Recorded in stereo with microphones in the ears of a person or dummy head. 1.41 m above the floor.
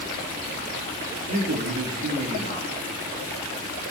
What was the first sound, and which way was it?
A man speaking, 55° right (ahead or behind).